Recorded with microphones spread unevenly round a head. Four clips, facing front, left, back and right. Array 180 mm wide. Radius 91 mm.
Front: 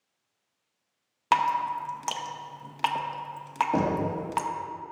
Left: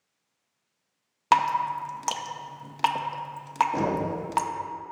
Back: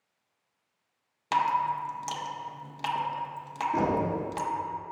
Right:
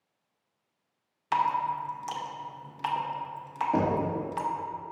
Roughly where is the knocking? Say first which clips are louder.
Even, back 1 dB; ahead right.